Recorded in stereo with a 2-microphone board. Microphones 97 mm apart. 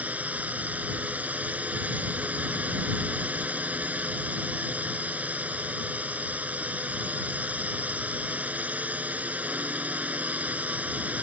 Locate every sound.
0.0 s a drone: 15° right (ahead or behind)